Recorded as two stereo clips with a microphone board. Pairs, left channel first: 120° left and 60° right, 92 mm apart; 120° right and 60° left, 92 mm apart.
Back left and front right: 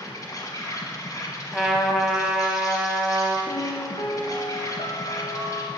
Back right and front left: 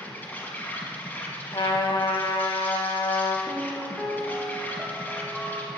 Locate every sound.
0.0 s an insect: 170° left, 1.2 m
1.5 s a trumpet: 150° right, 0.9 m
3.5 s a piano: 140° left, 1.0 m